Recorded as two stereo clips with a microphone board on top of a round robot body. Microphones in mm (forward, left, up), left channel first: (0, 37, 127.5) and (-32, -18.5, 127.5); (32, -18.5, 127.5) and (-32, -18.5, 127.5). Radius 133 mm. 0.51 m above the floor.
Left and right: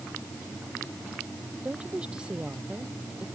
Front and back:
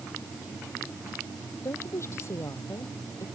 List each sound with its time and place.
1.6 s a woman speaking: 45° right